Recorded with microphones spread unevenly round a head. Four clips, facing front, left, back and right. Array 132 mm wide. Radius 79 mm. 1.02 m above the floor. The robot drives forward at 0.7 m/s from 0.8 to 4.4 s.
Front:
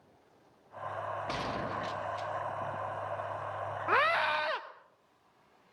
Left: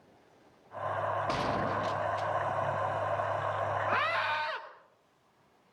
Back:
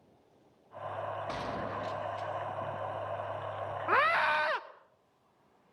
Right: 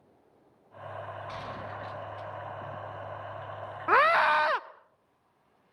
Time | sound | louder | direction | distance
1.3 | a gunshot | left 8 dB, front 1 dB | 100° left | 1.6 m
3.9 | a scream | right 8 dB, back 1 dB | 120° right | 0.6 m